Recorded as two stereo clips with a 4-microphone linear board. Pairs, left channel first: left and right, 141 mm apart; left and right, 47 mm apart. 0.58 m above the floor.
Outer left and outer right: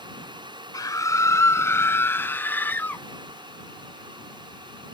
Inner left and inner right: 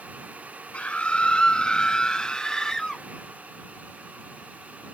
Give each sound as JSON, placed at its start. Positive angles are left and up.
{"t": 0.7, "sound": "a scream", "side_deg": 30}